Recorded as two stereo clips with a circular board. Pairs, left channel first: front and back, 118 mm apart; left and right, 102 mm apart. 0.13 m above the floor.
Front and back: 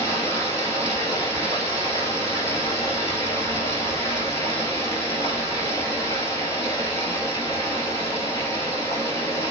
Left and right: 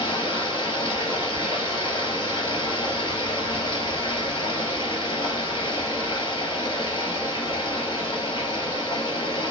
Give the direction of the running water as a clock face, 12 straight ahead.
10 o'clock.